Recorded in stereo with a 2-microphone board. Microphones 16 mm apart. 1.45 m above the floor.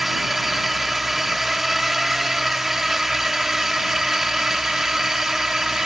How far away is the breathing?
No breathing in this recording.